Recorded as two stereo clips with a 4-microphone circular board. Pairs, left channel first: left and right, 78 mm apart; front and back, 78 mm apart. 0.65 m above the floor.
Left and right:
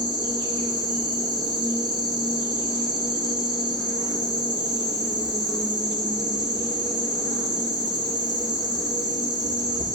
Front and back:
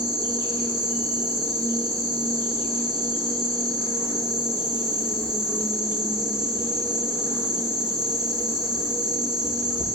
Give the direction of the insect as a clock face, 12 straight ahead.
2 o'clock.